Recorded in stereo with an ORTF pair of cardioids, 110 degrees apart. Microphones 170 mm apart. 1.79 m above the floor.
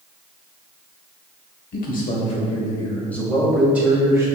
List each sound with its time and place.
1.7 s a man speaking: 60° left, 1.2 m; by 4.3 s 15° right, 1.8 m